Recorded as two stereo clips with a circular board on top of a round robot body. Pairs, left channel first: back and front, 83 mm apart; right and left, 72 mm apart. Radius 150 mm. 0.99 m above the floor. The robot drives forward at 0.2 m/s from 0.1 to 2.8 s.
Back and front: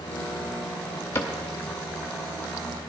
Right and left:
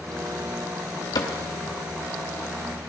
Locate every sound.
1.1 s a cupboard door: 120° right, 0.7 m